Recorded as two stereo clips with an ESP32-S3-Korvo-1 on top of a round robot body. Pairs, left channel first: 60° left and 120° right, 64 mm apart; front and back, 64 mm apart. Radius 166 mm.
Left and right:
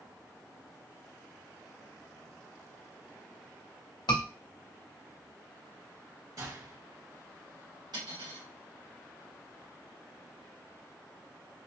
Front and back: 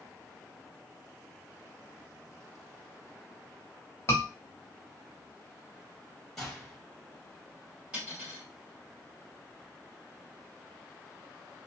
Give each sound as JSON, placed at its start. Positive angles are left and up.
{"t": 4.1, "sound": "a scream", "azimuth_deg": 50, "distance_m": 1.9}
{"t": 6.4, "sound": "a gunshot", "azimuth_deg": -90, "distance_m": 2.5}
{"t": 7.9, "sound": "cutlery clinking", "azimuth_deg": -105, "distance_m": 2.0}